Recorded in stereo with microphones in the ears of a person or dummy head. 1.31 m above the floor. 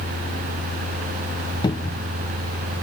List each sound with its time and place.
1.6 s a cupboard door: 20° left (ahead or behind)